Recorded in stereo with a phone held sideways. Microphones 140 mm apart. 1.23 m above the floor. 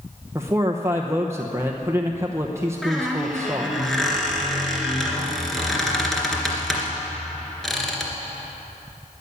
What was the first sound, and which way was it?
A man speaking, 20° right (ahead or behind).